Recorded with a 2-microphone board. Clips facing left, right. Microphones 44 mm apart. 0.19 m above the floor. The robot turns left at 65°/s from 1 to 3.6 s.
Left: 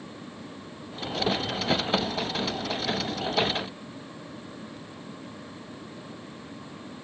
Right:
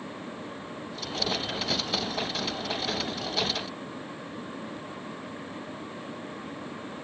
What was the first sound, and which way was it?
Only background noise.